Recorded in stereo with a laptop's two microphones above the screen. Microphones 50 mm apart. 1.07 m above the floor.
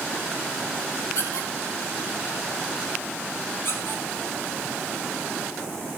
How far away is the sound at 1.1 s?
About 2.5 m.